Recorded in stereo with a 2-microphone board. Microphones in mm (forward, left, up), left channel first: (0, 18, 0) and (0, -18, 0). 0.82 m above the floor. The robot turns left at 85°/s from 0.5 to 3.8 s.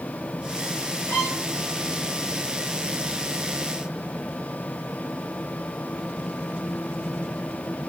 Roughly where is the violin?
Behind right.